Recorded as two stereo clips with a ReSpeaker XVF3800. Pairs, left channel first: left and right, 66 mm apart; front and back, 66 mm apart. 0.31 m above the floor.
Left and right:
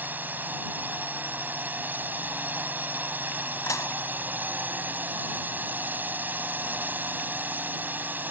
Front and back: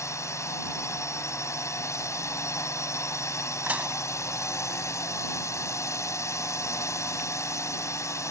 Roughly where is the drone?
Ahead right.